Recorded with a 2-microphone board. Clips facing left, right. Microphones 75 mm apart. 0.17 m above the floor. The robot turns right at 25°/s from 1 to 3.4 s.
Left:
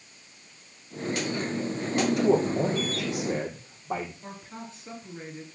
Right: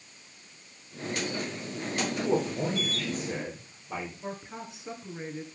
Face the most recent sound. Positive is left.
turn(degrees=-15)  # may be behind; listen again after turning